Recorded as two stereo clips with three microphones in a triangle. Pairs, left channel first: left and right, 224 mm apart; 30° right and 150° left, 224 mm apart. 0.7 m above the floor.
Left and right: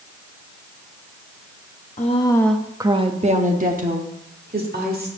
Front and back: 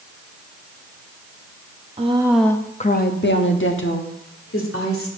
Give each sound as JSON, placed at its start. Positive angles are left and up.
{"t": 2.0, "sound": "a woman speaking", "azimuth_deg": 115, "distance_m": 0.7}